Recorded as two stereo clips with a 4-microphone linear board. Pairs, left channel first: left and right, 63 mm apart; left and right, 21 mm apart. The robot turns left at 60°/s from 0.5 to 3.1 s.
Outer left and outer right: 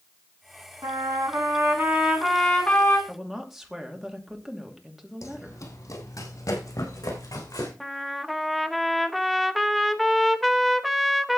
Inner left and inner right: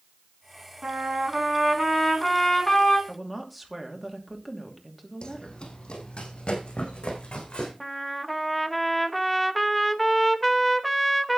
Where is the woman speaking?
5° right (ahead or behind), 2.5 m.